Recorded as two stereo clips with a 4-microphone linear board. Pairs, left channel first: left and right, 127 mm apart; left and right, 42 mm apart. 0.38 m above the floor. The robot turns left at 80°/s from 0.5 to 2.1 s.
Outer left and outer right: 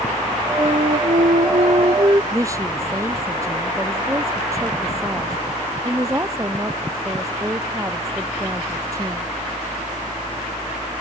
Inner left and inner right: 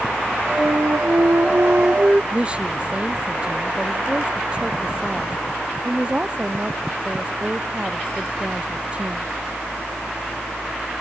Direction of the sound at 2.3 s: 25° right (ahead or behind).